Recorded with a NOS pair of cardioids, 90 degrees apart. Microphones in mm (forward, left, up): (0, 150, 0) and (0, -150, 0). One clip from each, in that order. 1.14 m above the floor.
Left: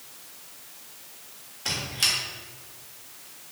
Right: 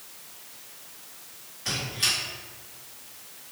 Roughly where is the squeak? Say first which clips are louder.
Left 1 dB; ahead left.